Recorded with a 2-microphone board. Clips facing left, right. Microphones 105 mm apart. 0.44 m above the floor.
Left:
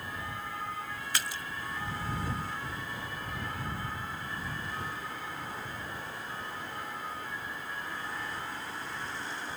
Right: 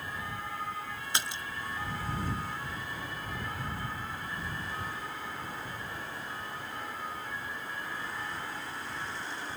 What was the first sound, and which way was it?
A splash, 25° right (ahead or behind).